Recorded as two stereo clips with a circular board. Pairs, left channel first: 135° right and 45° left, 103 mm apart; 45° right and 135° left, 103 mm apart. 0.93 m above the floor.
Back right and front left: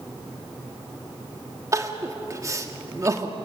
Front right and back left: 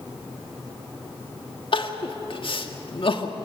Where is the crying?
15° right, 1.6 m.